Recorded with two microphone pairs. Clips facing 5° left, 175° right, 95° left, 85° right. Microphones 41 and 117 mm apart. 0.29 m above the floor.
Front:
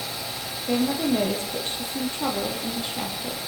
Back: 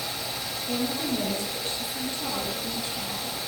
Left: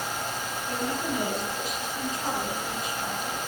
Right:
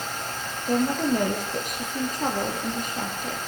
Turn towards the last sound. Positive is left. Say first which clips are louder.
# front 6 dB, right 8 dB
turn(degrees=-40)